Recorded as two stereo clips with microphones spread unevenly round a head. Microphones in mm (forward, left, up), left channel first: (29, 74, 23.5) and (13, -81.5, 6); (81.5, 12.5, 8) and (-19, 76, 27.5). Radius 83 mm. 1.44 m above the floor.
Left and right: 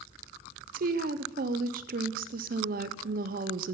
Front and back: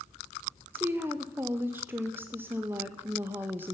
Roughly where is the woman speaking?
Behind right.